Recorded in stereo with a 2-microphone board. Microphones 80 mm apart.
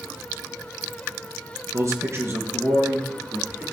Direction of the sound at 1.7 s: 40° right (ahead or behind).